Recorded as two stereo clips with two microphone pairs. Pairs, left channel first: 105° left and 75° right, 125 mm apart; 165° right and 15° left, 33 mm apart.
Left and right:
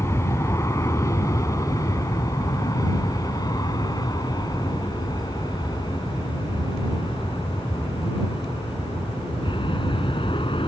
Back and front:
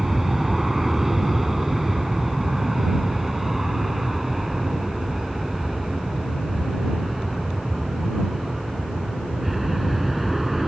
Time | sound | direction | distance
0.0 | an aircraft | 85° left | ?